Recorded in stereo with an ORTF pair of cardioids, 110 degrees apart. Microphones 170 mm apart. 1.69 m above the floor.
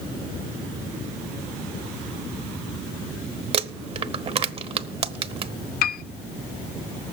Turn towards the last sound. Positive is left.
turn(degrees=65)